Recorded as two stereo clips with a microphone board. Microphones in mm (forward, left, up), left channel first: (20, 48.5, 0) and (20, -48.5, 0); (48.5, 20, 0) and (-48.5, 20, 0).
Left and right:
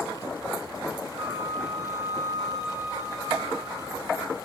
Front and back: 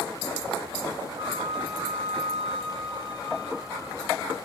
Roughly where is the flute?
Behind right.